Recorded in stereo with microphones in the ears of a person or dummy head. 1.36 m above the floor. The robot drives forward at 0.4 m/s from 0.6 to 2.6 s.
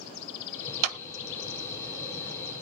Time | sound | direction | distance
0.8 | a clap | 40° right (ahead or behind) | 1.2 m